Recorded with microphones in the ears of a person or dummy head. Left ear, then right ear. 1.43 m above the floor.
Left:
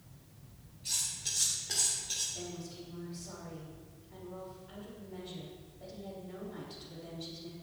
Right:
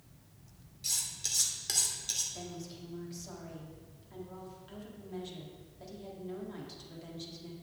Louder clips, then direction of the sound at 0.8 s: Right 1 dB; 80° right.